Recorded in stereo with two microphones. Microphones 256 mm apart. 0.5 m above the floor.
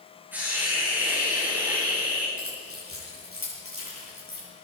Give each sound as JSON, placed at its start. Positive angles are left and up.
{"t": 0.3, "sound": "a hiss", "side_deg": -5, "distance_m": 8.5}
{"t": 2.4, "sound": "keys jangling", "side_deg": -60, "distance_m": 9.5}